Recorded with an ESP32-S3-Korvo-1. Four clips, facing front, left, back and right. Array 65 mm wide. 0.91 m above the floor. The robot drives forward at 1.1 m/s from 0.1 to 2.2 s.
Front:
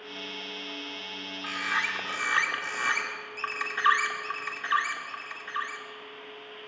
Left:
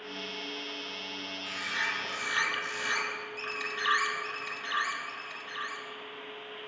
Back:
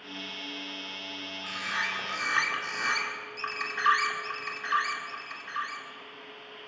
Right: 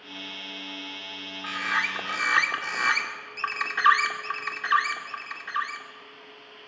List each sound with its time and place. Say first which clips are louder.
1.4 s a bird: right 7 dB, front 3 dB; 60° right, 2.5 m; by 5.9 s 80° right, 2 m